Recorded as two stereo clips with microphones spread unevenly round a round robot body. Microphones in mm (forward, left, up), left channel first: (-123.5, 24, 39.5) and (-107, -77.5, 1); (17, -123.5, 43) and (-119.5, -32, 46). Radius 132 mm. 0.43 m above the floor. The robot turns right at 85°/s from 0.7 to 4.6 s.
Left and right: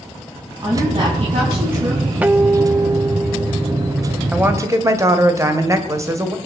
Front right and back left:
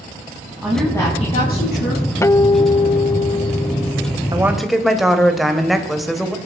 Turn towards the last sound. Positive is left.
turn(degrees=-125)